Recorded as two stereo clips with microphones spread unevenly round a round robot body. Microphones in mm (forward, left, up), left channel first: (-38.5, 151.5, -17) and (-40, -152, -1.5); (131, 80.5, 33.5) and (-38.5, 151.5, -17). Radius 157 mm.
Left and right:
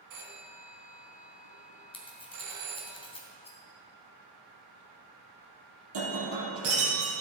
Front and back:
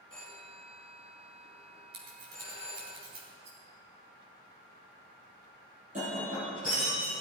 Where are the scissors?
160° left, 3 m.